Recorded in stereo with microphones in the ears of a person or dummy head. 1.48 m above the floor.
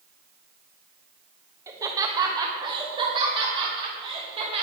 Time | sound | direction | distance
1.7 | laughter | 20° right (ahead or behind) | 2 m